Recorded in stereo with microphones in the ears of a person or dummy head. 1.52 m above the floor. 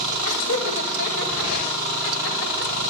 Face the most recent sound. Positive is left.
turn(degrees=85)